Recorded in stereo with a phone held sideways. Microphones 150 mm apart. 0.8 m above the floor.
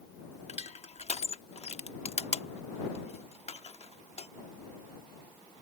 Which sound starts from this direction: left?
Crushing, at 0.5 s.